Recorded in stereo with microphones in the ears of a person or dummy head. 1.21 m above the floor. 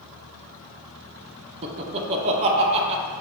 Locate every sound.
1.6 s laughter: 30° right (ahead or behind), 0.5 m